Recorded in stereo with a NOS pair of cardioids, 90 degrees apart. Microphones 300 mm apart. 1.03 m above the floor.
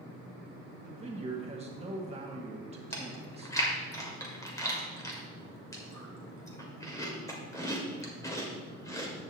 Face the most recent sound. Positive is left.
turn(degrees=10)